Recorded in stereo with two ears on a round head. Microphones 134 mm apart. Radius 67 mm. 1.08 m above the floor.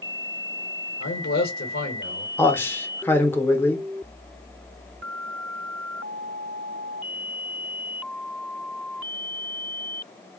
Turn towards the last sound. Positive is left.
turn(degrees=15)  # may be behind; listen again after turning